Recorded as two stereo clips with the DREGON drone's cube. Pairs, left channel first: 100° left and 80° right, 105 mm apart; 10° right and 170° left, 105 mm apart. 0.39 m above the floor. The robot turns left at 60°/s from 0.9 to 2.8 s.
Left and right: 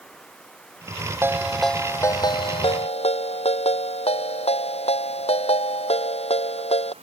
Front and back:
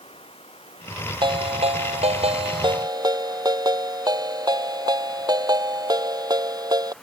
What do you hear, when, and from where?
0.0 s running water: 15° left; by 7.0 s 95° right
1.2 s a ringtone: 145° right; by 6.9 s 120° left